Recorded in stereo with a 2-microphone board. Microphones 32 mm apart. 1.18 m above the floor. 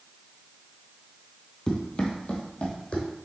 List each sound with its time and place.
1.7 s running footsteps: 25° left (ahead or behind), 1.3 m; by 3.1 s 45° left (ahead or behind), 2 m